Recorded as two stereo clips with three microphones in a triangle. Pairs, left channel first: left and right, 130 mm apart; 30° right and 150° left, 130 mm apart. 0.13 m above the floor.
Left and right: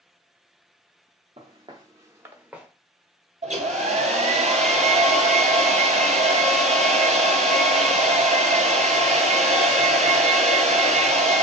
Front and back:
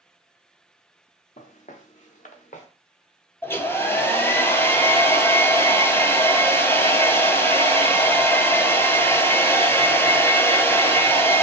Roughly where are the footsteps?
Ahead right.